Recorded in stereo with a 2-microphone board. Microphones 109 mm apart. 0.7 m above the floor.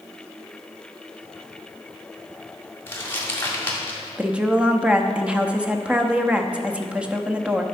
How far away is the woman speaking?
About 0.7 m.